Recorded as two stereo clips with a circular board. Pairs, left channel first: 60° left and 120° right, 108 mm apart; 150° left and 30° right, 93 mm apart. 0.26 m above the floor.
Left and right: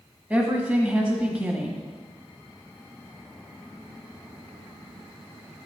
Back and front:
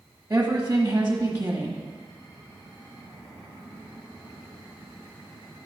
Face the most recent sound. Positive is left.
turn(degrees=-65)